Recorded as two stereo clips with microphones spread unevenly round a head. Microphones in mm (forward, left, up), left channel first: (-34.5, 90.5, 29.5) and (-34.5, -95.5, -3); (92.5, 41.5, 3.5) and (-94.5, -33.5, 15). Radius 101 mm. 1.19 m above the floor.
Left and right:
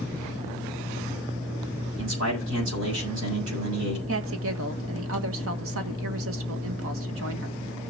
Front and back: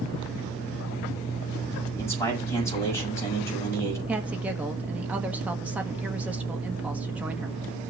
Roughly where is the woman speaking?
Right.